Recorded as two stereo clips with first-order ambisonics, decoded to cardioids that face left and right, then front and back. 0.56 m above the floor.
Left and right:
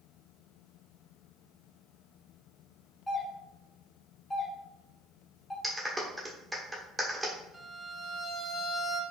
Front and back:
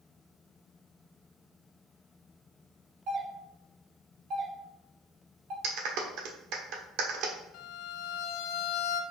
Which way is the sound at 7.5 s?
10° right.